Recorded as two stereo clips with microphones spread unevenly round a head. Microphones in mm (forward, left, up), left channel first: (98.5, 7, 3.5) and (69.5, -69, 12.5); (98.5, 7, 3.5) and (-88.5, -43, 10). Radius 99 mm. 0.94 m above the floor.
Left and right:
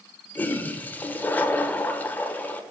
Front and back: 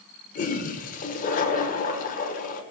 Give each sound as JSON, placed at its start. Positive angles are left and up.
{"t": 0.3, "sound": "a toilet flushing", "azimuth_deg": 5, "distance_m": 0.7}